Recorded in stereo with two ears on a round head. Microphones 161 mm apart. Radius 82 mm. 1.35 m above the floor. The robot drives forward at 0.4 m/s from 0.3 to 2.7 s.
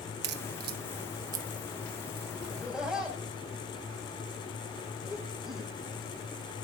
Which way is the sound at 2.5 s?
5° right (ahead or behind).